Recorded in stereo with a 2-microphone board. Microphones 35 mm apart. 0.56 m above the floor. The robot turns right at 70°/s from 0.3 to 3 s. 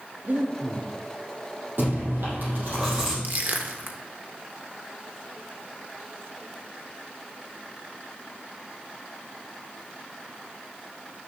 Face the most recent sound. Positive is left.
turn(degrees=-50)  # may be behind; listen again after turning